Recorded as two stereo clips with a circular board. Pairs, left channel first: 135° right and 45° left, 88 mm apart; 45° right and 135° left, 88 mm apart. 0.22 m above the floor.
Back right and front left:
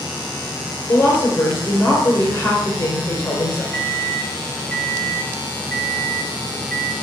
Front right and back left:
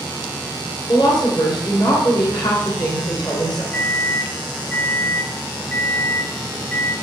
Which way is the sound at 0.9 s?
70° right.